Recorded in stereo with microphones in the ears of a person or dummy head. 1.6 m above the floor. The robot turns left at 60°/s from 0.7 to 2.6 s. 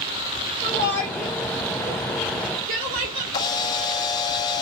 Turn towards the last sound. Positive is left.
turn(degrees=30)  # may be behind; listen again after turning